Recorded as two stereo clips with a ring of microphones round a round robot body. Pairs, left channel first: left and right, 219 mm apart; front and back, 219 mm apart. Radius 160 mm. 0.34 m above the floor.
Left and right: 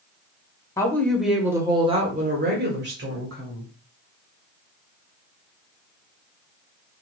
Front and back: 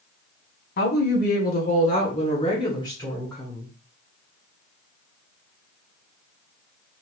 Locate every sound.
0.8 s a woman speaking: 15° left, 1.1 m; by 3.7 s 85° right, 1.5 m